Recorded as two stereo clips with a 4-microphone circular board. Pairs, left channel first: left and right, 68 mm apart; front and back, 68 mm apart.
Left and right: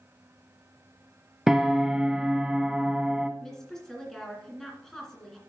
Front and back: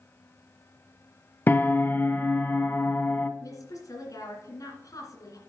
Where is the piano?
15° right, 0.6 m.